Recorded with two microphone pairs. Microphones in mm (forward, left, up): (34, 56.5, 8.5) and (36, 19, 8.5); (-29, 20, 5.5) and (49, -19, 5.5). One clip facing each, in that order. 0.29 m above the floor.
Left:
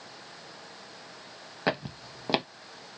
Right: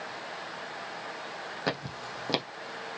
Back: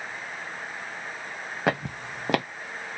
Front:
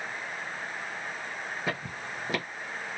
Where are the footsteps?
160° left, 0.6 m.